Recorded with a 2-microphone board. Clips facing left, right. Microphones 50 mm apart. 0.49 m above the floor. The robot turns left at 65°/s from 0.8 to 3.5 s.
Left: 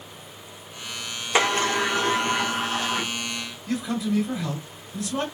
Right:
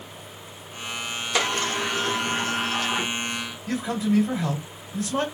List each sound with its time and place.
1.4 s a sliding door: 105° left, 0.7 m; by 3.1 s 10° right, 0.7 m
3.7 s a man speaking: 30° right (ahead or behind), 2 m